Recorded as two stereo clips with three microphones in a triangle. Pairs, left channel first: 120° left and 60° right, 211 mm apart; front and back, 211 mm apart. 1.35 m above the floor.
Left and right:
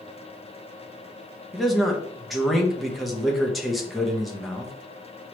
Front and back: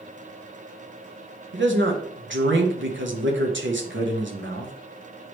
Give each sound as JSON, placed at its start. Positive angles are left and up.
{"t": 1.5, "sound": "a man speaking", "azimuth_deg": -150, "distance_m": 1.2}